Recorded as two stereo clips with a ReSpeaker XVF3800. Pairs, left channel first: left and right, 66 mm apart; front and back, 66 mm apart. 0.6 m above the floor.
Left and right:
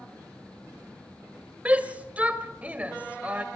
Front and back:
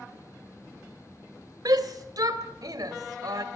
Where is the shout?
160° right, 1.9 m.